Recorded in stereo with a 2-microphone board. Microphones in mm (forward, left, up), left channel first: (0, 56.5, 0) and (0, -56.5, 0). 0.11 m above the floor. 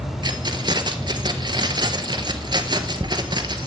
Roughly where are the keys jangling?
Right.